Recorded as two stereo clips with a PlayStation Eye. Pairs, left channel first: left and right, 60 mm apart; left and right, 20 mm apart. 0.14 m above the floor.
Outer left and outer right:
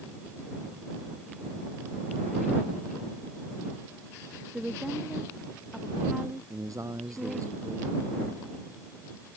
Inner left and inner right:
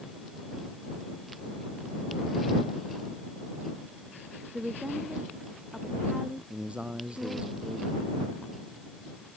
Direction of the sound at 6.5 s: 65° right (ahead or behind).